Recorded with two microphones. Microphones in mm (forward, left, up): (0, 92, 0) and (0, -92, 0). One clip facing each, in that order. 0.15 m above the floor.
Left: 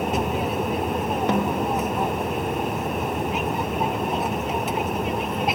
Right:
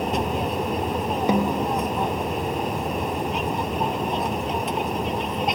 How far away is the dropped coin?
I don't hear a dropped coin.